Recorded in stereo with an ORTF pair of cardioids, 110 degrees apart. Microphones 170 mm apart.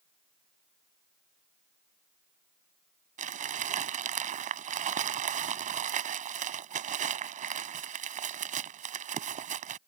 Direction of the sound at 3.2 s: 50° right.